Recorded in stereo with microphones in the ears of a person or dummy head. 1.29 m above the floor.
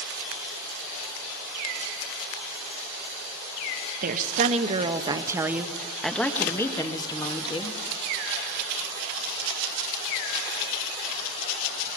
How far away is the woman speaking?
About 1.6 m.